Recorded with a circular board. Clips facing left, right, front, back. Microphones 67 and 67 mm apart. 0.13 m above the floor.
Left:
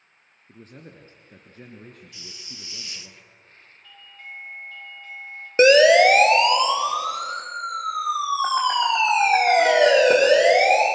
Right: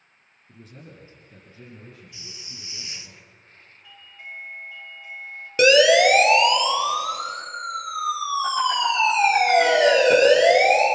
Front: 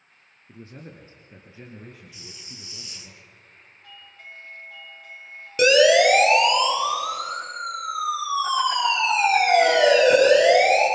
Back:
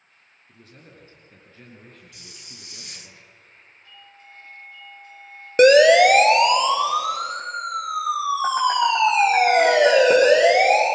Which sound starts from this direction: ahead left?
A man speaking, at 0.5 s.